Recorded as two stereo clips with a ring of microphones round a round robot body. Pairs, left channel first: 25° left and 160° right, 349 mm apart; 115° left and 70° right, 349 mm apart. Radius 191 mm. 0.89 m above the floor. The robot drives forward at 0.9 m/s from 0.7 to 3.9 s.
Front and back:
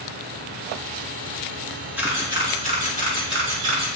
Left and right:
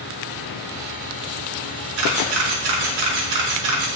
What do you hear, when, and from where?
2.0 s a camera shutter: 75° right, 3 m; by 3.9 s 105° right, 3 m